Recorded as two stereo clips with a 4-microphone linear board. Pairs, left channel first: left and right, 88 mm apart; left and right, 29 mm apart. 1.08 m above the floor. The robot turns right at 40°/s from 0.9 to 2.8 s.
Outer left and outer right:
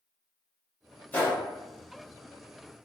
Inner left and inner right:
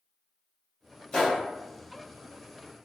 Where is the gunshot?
20° left (ahead or behind), 1.1 m; by 1.4 s 30° left (ahead or behind), 1.1 m.